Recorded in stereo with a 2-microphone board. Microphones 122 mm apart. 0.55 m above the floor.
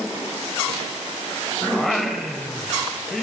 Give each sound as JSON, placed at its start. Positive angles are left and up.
{"t": 1.7, "sound": "singing", "side_deg": 0, "distance_m": 1.7}